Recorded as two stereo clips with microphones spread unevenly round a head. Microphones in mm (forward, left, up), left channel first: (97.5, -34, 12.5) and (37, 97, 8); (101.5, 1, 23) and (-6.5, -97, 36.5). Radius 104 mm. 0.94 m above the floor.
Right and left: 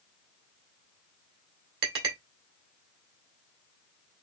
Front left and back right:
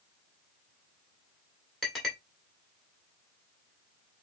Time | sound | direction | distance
1.8 | a clink | 130° left | 1.9 m